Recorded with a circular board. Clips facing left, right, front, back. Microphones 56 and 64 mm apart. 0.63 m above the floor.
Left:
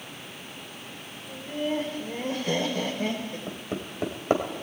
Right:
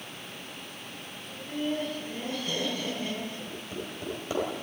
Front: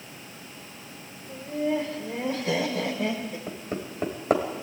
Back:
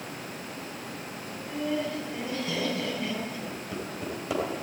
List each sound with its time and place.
1.3 s laughter: 30° left, 3 m; by 3.4 s 45° left, 4 m
3.5 s hammering: 45° left, 3.5 m